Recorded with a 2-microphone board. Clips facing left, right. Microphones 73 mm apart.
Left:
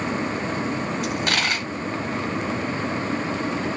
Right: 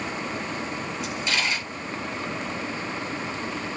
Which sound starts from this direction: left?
A dropped coin, at 1.0 s.